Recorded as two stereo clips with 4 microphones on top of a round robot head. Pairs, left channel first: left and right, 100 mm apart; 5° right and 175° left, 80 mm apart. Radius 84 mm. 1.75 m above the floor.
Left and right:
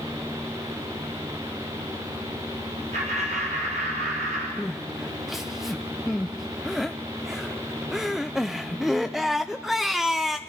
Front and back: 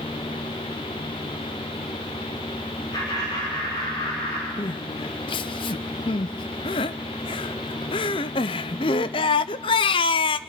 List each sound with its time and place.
2.9 s laughter: 60° right, 4 m
4.6 s crying: straight ahead, 0.6 m